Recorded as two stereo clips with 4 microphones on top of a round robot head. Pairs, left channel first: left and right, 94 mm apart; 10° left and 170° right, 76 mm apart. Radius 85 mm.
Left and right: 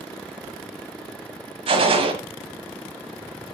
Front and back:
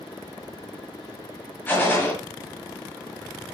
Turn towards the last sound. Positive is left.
turn(degrees=-60)